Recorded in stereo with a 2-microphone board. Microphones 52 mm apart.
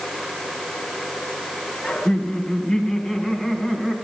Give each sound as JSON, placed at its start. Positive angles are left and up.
{"t": 1.8, "sound": "laughter", "side_deg": 25, "distance_m": 3.5}